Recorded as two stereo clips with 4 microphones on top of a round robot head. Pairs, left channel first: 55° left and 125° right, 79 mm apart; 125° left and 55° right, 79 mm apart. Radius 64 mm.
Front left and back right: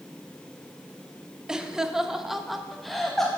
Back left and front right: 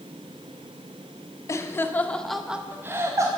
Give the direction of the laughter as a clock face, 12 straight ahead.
7 o'clock.